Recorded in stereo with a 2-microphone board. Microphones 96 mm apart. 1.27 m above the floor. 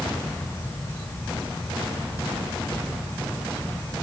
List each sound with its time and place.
Only background noise.